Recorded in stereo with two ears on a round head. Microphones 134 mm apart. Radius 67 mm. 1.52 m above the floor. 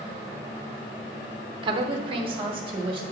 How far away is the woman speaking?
About 0.8 m.